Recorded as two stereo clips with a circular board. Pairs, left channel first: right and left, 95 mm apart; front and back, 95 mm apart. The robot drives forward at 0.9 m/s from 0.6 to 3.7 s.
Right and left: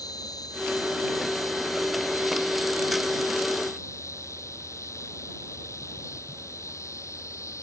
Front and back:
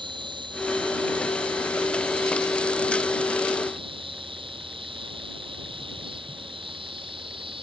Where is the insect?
140° right; by 7.6 s 150° right.